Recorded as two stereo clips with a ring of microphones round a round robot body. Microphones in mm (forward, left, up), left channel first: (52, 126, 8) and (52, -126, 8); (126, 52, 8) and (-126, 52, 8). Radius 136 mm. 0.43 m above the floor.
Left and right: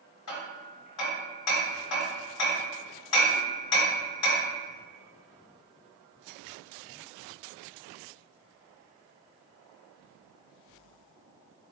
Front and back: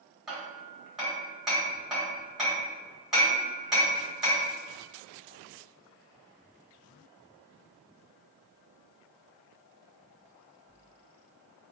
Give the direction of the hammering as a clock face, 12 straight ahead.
9 o'clock.